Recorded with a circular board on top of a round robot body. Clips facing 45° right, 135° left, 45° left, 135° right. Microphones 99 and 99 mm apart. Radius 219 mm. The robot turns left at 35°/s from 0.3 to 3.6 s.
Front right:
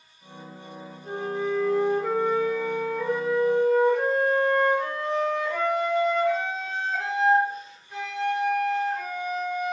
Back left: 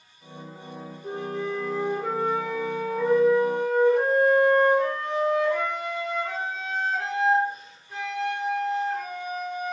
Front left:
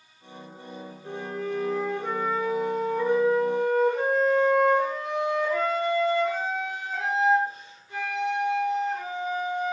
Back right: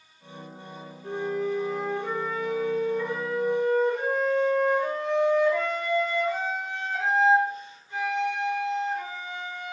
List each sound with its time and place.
1.0 s a flute: 140° left, 0.8 m; by 9.7 s 50° left, 0.8 m